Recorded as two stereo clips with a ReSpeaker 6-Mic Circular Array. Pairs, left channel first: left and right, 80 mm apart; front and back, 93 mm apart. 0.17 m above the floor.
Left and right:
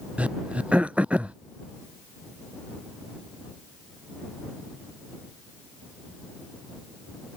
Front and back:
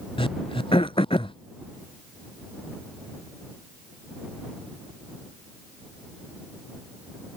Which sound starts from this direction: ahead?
Throat clearing, at 0.2 s.